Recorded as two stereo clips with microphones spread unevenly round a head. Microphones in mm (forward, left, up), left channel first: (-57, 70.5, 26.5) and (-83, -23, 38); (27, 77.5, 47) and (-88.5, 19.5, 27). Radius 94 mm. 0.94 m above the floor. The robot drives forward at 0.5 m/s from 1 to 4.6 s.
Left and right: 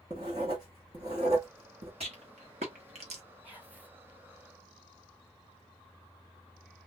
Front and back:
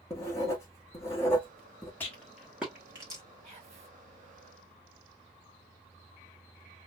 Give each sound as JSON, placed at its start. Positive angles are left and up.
{"t": 0.1, "sound": "writing", "azimuth_deg": -45, "distance_m": 1.3}
{"t": 2.0, "sound": "a rattle", "azimuth_deg": -50, "distance_m": 1.1}
{"t": 3.4, "sound": "whispering", "azimuth_deg": 180, "distance_m": 2.0}